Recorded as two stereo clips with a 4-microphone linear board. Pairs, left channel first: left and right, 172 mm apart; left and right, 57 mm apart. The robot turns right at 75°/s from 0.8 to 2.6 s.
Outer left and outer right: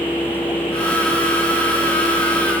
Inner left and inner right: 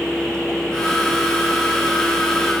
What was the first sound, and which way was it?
Only background noise.